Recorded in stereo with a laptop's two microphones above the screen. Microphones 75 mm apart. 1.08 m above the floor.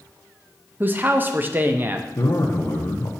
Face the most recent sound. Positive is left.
turn(degrees=50)  # may be behind; listen again after turning